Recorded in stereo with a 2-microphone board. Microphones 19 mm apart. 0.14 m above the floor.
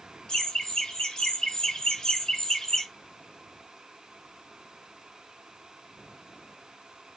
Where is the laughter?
40° left (ahead or behind), 2 m; by 2.9 s 25° left (ahead or behind), 1.2 m.